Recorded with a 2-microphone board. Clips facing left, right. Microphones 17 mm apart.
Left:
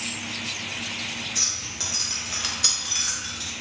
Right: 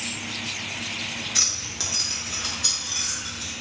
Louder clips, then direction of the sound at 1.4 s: Right 3 dB; 40° right (ahead or behind).